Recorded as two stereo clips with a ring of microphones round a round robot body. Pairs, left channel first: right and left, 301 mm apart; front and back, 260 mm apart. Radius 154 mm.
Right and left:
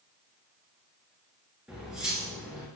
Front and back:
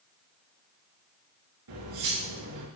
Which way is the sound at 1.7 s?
175° left.